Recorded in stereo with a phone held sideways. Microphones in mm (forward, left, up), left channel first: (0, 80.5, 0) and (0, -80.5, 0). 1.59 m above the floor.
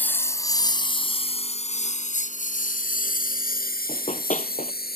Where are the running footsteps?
50° left (ahead or behind).